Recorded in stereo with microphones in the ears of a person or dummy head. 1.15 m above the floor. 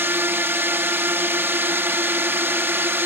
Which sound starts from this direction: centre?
A drone, at 0.0 s.